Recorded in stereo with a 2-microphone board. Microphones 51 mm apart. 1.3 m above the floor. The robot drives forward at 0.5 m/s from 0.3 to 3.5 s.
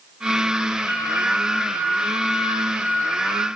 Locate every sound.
0.9 s a flute: 25° right (ahead or behind), 2.5 m; by 3.5 s 40° right (ahead or behind), 1.4 m